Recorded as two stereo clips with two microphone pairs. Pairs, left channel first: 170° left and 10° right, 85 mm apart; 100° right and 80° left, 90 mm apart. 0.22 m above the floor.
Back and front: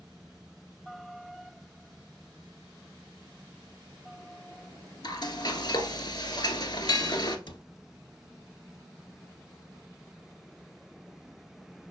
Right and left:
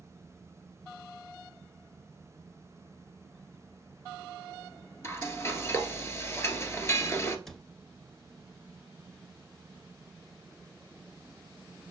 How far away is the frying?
About 1.3 m.